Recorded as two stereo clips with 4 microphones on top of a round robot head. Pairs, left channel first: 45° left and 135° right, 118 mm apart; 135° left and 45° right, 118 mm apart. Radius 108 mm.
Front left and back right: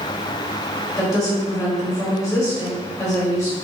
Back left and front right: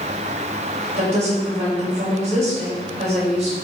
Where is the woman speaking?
15° right, 3.5 m.